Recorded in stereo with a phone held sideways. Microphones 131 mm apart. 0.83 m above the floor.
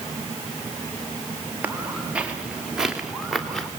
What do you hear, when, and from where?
1.6 s footsteps: 15° right (ahead or behind), 4 m; by 3.7 s 5° left (ahead or behind), 4 m